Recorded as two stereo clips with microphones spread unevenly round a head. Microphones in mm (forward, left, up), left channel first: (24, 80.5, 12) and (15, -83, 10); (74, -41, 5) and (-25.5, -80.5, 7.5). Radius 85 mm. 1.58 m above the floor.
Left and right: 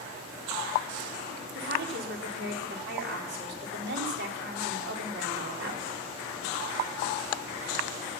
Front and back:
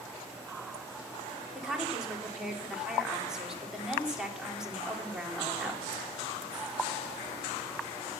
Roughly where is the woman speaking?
Right.